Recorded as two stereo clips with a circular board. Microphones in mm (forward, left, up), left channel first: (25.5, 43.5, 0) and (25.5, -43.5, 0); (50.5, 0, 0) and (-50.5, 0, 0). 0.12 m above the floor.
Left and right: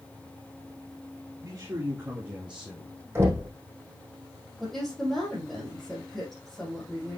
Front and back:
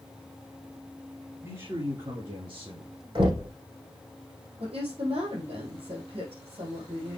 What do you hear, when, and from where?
1.4 s a man speaking: 130° right, 3 m; by 3.0 s straight behind, 3.5 m
3.1 s knocking: 150° right, 4 m
4.6 s a woman speaking: 175° left, 4.5 m